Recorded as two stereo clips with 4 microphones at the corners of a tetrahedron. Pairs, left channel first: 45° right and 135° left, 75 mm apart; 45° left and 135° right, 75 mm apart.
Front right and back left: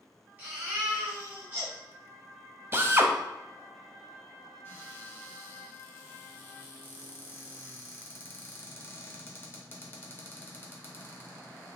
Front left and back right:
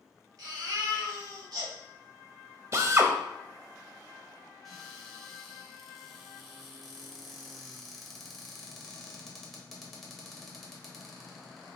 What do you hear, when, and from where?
0.4 s a baby crying: 160° right, 2.0 m
2.7 s a drill: 175° right, 0.5 m
4.7 s a cupboard door: 40° right, 1.1 m